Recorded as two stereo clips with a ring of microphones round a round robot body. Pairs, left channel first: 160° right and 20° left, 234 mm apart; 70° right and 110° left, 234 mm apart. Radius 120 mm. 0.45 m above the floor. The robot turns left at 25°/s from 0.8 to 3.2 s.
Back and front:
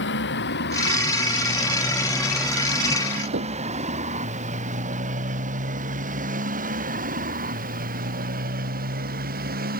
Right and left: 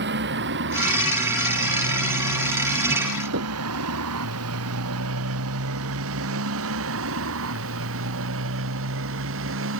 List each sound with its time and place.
0.0 s a motorcycle: 160° left; by 9.8 s 75° left
3.3 s knocking: 70° left